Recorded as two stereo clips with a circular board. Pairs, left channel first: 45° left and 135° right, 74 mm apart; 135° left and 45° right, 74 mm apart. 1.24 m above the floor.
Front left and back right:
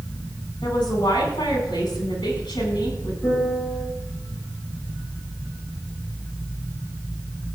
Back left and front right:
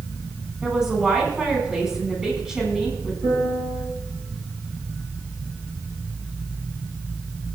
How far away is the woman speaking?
About 7.5 m.